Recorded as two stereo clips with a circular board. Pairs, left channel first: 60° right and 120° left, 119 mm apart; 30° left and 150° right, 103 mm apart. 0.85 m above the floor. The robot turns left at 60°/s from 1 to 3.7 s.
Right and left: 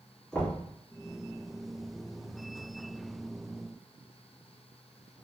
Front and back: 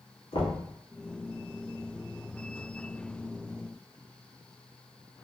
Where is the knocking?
25° left, 1.6 m.